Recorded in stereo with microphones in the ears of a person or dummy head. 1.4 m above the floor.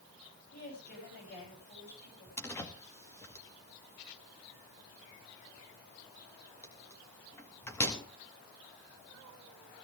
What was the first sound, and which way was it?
A woman speaking, 50° left (ahead or behind).